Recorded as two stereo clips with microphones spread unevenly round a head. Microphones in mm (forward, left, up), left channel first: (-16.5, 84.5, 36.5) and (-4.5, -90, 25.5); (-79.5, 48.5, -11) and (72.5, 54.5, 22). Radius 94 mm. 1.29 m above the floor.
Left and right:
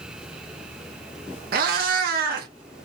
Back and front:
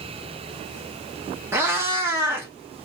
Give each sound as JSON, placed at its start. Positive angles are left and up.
{"t": 1.5, "sound": "a cat meowing", "azimuth_deg": -60, "distance_m": 0.6}